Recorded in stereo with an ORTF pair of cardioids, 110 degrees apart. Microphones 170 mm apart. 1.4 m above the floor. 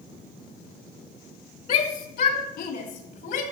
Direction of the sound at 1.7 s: 60° left.